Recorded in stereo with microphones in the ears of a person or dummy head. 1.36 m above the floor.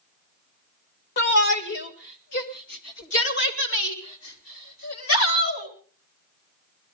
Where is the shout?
55° left (ahead or behind), 1.6 m; by 5.7 s 70° left (ahead or behind), 4 m.